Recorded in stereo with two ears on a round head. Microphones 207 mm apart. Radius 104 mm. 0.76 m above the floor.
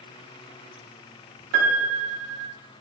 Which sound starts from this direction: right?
A piano, at 1.5 s.